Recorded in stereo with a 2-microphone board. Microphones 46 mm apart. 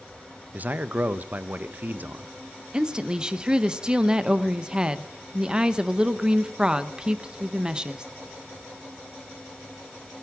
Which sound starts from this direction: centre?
A woman speaking, at 2.7 s.